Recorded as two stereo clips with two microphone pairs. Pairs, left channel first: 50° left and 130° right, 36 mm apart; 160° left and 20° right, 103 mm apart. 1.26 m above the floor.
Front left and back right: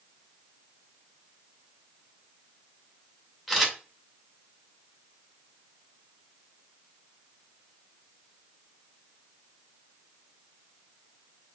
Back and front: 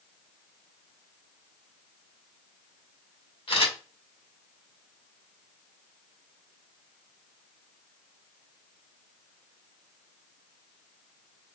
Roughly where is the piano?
I don't hear a piano.